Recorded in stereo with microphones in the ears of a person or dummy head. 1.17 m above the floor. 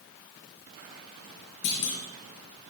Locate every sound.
1.6 s a clunk: 65° left (ahead or behind), 5 m